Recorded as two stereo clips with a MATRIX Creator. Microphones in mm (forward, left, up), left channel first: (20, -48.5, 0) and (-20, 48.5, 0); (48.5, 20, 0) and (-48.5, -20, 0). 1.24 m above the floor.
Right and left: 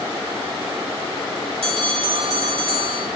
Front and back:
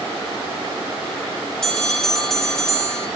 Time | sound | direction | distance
1.6 | a bell | 110° left | 2 m